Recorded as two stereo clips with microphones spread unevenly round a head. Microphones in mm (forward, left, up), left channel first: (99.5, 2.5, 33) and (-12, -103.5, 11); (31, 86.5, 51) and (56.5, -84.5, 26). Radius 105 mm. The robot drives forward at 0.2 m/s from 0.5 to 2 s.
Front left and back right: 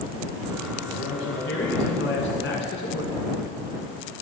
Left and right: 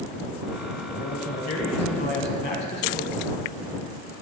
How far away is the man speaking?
About 0.9 m.